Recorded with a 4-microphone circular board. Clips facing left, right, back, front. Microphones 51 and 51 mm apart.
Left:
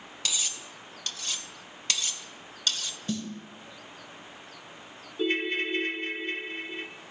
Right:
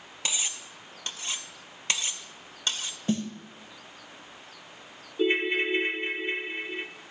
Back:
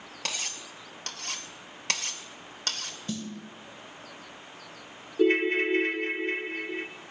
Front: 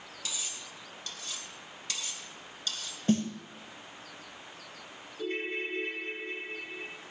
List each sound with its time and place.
0.2 s cutlery clinking: 155° right, 0.5 m
3.1 s a snare drum: 40° right, 0.8 m
5.2 s a ringtone: 160° right, 0.5 m